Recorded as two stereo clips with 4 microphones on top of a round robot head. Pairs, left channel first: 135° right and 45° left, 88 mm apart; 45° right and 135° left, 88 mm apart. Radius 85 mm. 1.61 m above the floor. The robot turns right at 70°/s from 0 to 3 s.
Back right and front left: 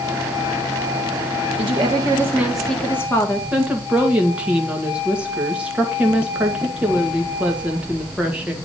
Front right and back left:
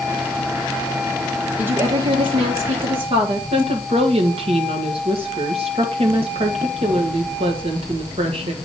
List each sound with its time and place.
1.6 s a woman speaking: 60° left, 1.6 m; by 3.4 s 160° left, 1.6 m
3.5 s a woman speaking: 120° left, 1.8 m